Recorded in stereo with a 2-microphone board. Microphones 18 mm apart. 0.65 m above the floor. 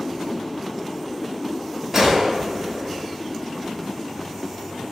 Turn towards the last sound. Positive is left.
turn(degrees=-25)  # may be behind; listen again after turning